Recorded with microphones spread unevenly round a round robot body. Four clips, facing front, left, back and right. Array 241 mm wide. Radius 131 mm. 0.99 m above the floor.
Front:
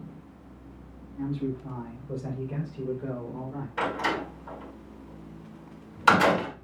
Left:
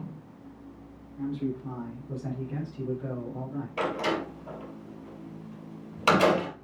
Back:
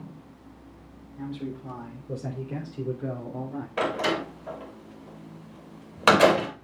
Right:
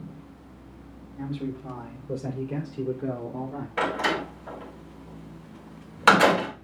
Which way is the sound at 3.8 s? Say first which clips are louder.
Right 3 dB, back 2 dB; 160° right.